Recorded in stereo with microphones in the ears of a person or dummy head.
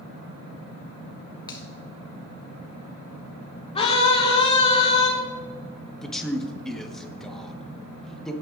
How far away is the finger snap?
About 1.1 m.